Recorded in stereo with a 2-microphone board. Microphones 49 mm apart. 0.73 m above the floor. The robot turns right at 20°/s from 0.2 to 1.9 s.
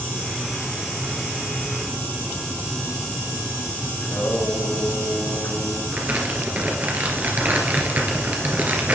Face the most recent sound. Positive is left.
turn(degrees=-35)  # may be behind; listen again after turning